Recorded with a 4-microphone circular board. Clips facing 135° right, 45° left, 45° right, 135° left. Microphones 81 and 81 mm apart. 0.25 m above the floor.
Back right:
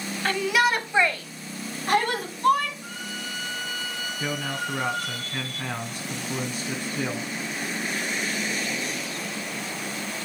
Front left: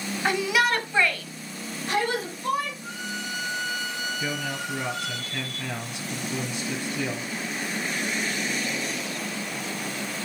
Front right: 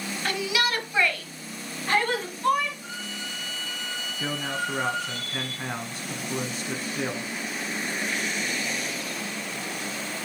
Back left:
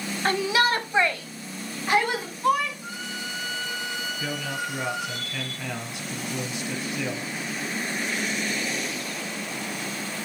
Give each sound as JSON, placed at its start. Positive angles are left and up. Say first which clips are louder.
{"t": 0.2, "sound": "a shout", "louder": "back right 1 dB, back left 5 dB", "azimuth_deg": 110, "distance_m": 1.2}
{"t": 2.8, "sound": "a violin", "louder": "front left 2 dB, back left 2 dB", "azimuth_deg": -150, "distance_m": 1.4}
{"t": 4.2, "sound": "a man speaking", "louder": "back right 1 dB, front right 4 dB", "azimuth_deg": -95, "distance_m": 2.0}